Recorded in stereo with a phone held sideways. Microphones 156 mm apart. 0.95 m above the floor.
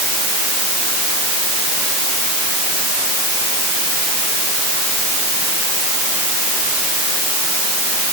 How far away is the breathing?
I don't hear breathing.